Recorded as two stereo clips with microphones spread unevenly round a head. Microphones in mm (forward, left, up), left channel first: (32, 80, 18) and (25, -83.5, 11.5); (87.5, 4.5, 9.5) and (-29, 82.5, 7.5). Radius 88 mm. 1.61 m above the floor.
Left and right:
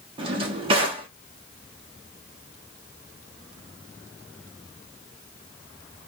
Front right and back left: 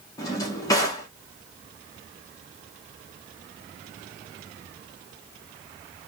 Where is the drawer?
70° right, 0.8 m.